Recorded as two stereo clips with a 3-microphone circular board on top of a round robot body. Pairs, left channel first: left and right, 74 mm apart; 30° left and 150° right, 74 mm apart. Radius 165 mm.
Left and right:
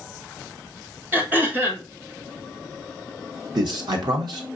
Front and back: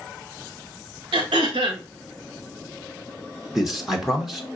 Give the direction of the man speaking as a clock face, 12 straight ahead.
2 o'clock.